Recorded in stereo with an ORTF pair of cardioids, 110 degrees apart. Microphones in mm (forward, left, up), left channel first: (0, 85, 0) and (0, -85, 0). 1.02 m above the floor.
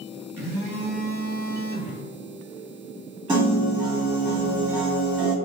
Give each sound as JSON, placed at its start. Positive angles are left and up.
{"t": 0.4, "sound": "a phone buzzing", "azimuth_deg": -15, "distance_m": 1.1}
{"t": 3.3, "sound": "a piano", "azimuth_deg": -25, "distance_m": 1.4}